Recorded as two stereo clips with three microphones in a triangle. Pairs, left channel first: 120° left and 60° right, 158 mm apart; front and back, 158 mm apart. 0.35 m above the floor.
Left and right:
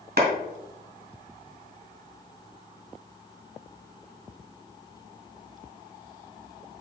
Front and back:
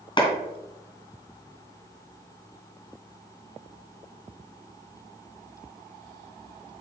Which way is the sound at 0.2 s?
55° right.